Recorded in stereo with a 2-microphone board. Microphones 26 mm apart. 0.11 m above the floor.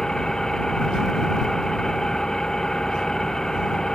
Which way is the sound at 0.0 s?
20° left (ahead or behind).